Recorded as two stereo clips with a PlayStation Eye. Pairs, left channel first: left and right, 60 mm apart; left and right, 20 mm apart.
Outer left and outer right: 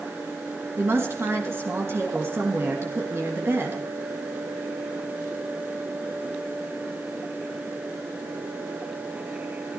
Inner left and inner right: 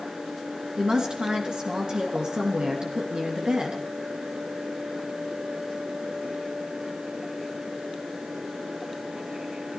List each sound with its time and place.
0.8 s a woman speaking: 45° right (ahead or behind), 3 m